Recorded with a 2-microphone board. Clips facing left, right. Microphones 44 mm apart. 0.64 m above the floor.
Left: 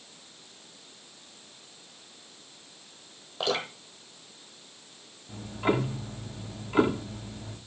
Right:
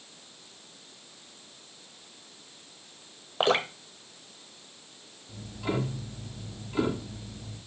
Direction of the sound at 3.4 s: 40° right (ahead or behind).